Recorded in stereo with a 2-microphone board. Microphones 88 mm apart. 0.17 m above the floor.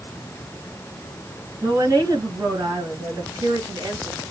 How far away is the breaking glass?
No breaking glass in this recording.